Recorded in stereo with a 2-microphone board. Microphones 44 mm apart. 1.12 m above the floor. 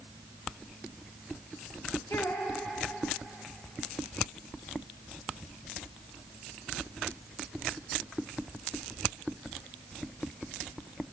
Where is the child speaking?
85° left, 1.9 m.